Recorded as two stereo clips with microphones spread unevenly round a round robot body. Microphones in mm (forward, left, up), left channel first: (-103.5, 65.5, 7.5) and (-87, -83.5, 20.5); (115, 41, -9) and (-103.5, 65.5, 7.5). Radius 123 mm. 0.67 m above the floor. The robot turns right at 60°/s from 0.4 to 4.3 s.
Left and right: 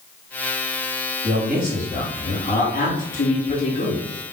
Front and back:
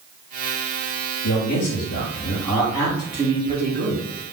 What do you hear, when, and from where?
1.2 s a man speaking: 25° right, 2 m; by 4.1 s 145° left, 2 m